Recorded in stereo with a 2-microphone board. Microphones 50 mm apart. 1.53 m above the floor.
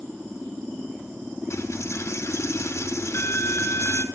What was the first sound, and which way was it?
A dropped coin, 65° left (ahead or behind).